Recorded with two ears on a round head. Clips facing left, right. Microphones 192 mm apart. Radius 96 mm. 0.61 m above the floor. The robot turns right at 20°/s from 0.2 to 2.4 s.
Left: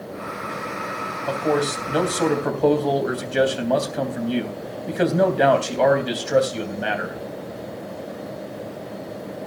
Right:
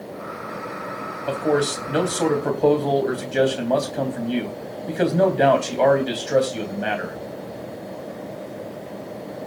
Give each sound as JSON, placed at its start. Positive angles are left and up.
{"t": 1.3, "sound": "a man speaking", "side_deg": -20, "distance_m": 3.5}